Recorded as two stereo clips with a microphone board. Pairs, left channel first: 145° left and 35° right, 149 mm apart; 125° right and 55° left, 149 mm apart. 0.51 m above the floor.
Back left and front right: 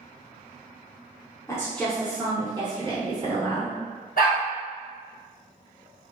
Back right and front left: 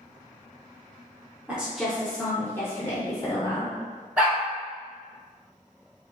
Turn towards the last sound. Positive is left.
turn(degrees=140)